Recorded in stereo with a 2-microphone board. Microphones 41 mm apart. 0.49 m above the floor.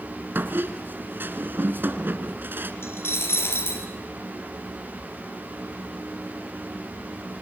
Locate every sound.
0.3 s a squeak: 60° right (ahead or behind), 1.7 m
2.8 s a dropped coin: 80° left, 3 m